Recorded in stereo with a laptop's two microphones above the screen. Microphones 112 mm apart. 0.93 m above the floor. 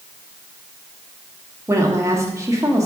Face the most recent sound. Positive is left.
turn(degrees=-25)  # may be behind; listen again after turning